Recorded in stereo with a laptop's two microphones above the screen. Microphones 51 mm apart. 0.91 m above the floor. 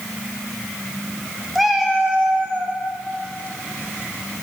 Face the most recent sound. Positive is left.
turn(degrees=-50)  # may be behind; listen again after turning